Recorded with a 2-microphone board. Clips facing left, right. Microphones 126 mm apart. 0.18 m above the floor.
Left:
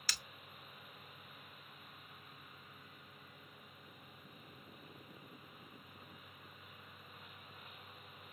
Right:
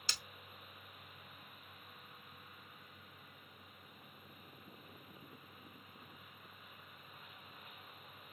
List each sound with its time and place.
0.1 s breaking glass: 25° right (ahead or behind), 0.6 m